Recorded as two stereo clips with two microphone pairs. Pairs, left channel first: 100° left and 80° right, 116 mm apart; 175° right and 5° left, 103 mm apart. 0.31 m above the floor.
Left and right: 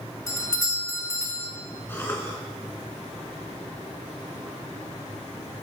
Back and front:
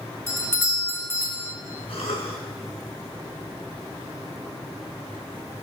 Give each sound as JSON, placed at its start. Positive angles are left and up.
{"t": 0.3, "sound": "a doorbell", "azimuth_deg": 145, "distance_m": 1.6}
{"t": 1.9, "sound": "a cough", "azimuth_deg": 170, "distance_m": 3.5}